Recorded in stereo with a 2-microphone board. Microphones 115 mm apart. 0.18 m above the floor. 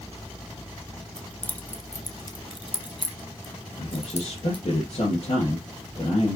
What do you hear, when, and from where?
1.2 s keys jangling: 5° left (ahead or behind), 1.2 m; by 4.6 s 50° left (ahead or behind), 2 m
3.8 s a man speaking: 55° left (ahead or behind), 2.5 m